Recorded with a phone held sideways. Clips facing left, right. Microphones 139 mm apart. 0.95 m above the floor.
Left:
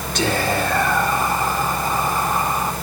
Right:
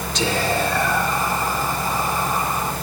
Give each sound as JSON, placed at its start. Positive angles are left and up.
{"t": 0.1, "sound": "whispering", "side_deg": 60, "distance_m": 1.9}